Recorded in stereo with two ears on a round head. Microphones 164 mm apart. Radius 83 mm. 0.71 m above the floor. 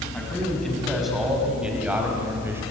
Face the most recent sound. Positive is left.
turn(degrees=-15)  # may be behind; listen again after turning